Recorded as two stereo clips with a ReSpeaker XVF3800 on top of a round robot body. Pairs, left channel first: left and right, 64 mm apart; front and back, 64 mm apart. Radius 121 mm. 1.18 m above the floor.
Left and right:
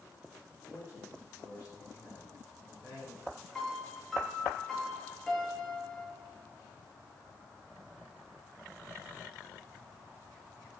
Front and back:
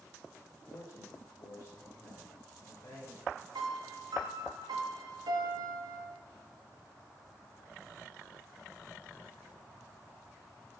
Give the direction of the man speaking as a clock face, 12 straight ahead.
10 o'clock.